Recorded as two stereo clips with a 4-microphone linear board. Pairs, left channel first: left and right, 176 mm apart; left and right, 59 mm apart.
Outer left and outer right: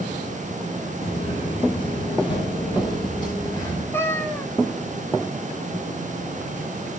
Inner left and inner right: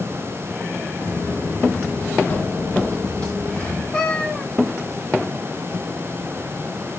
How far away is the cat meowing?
About 0.8 m.